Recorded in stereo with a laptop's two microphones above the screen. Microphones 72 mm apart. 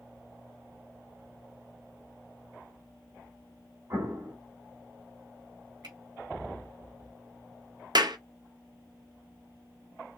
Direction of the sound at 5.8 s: 75° right (ahead or behind).